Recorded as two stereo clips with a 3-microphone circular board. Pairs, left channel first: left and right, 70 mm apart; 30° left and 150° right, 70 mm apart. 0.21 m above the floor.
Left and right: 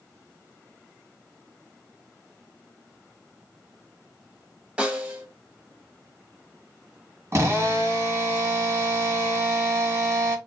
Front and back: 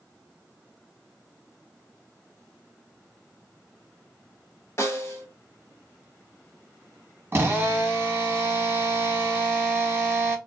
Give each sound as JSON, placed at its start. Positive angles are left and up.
{"t": 4.8, "sound": "a snare drum", "azimuth_deg": -20, "distance_m": 0.9}
{"t": 7.3, "sound": "a drill", "azimuth_deg": -110, "distance_m": 1.0}